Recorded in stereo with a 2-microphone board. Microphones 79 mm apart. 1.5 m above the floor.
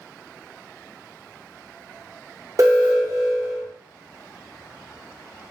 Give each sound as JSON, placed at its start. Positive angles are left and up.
{"t": 2.6, "sound": "an alarm", "side_deg": -45, "distance_m": 0.7}